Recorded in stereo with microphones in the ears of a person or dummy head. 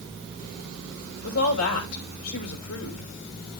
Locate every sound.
1.2 s a woman speaking: 75° left (ahead or behind), 3 m